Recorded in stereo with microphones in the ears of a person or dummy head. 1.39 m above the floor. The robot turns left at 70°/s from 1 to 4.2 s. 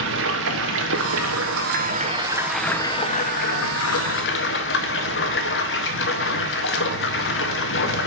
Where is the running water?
70° right, 0.7 m; by 8.1 s 65° left, 0.7 m.